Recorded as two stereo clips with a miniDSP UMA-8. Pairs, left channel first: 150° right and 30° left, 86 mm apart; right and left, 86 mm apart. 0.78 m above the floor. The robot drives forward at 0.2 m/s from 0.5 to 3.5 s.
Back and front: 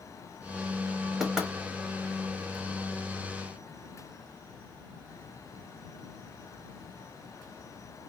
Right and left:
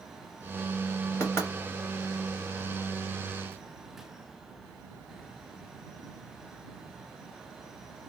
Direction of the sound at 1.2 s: 55° right.